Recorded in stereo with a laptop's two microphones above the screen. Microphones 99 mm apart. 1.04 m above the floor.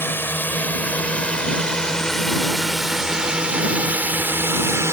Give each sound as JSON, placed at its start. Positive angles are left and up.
{"t": 0.0, "sound": "a drone", "side_deg": 20}